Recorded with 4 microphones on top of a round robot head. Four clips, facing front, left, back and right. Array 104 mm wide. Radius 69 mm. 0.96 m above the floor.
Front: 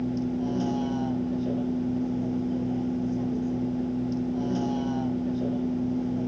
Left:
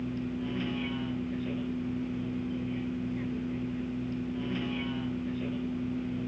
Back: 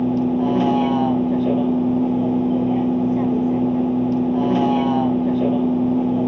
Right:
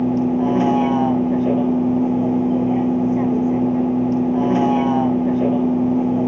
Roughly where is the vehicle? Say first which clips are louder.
Right 17 dB, back 10 dB; behind right.